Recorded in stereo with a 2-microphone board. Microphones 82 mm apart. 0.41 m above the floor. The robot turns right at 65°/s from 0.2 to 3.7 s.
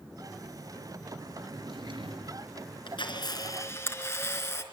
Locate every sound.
1.5 s a drawer: 125° right, 3.5 m; by 2.5 s 65° right, 3.5 m
2.9 s a camera shutter: 95° left, 4 m; by 4.6 s 150° left, 4 m